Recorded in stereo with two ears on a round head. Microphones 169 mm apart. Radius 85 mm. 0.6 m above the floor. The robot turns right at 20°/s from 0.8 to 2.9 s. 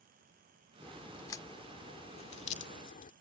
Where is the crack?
10° left (ahead or behind); by 3.1 s 45° left (ahead or behind).